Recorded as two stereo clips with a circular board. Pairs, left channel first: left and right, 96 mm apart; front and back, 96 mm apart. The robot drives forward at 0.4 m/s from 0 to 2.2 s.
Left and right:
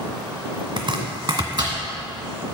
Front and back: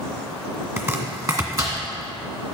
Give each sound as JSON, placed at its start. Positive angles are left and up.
{"t": 0.8, "sound": "chopping", "azimuth_deg": -120, "distance_m": 1.5}